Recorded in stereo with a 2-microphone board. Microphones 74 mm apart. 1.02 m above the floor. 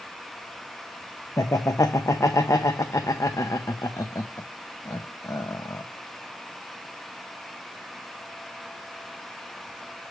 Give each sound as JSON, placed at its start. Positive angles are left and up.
{"t": 1.4, "sound": "laughter", "side_deg": 45, "distance_m": 0.6}